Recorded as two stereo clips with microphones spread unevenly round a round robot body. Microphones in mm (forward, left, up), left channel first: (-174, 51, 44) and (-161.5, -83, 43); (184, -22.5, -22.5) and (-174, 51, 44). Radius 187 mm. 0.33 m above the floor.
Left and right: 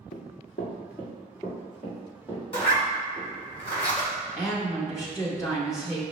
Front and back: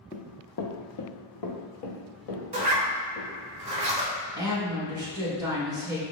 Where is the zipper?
90° left, 1.5 m.